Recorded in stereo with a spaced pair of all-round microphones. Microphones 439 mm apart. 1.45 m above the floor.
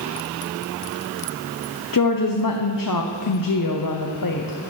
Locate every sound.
1.9 s a woman speaking: 50° left (ahead or behind), 0.6 m